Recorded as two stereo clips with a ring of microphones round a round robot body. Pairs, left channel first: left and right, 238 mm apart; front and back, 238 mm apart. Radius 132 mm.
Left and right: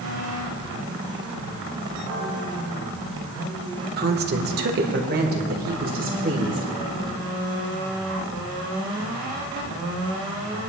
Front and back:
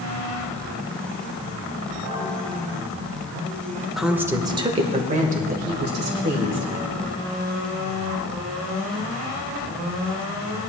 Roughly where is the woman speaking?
Right.